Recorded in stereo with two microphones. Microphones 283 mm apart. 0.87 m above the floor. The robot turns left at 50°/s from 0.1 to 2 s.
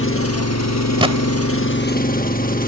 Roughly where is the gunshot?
Centre.